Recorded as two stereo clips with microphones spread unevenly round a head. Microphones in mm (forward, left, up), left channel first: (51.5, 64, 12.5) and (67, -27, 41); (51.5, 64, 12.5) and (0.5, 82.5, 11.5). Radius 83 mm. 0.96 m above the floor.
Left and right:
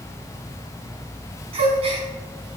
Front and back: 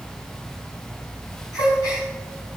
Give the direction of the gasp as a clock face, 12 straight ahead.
3 o'clock.